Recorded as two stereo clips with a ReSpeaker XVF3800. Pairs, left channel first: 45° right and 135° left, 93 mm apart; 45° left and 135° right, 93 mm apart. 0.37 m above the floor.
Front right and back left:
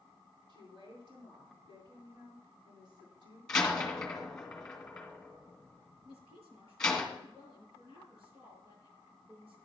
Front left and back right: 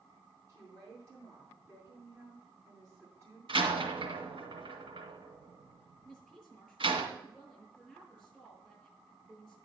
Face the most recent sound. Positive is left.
turn(degrees=135)